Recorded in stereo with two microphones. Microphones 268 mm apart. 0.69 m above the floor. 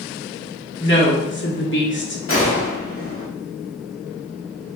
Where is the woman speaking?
40° left (ahead or behind), 1.8 m.